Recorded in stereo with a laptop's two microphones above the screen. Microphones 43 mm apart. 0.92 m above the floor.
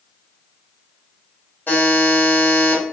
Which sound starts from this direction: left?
A buzzer, at 1.7 s.